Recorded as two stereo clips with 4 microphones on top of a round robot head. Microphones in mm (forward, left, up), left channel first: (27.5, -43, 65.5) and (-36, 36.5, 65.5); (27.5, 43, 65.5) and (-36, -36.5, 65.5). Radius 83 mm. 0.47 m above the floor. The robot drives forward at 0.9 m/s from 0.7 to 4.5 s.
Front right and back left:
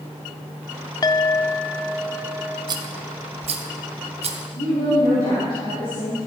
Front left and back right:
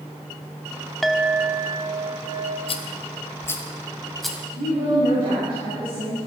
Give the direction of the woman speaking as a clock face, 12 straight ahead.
3 o'clock.